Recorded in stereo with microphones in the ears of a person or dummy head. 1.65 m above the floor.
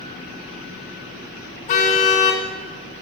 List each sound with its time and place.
1.7 s a car horn: 45° left (ahead or behind), 2.5 m